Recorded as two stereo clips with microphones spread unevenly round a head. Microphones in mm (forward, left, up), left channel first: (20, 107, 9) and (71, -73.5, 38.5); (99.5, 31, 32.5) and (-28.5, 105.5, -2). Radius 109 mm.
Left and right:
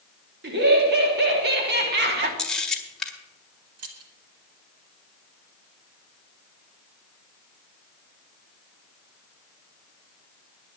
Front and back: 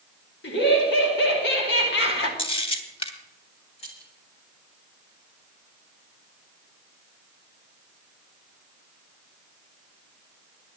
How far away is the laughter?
About 2.5 m.